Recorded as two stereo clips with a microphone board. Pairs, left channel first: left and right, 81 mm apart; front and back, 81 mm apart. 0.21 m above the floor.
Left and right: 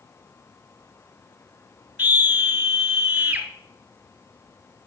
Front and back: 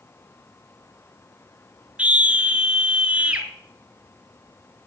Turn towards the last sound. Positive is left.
turn(degrees=-135)